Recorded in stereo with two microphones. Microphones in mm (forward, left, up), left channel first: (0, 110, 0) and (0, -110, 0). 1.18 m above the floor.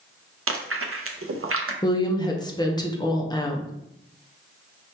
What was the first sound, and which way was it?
Chewing, 75° right (ahead or behind).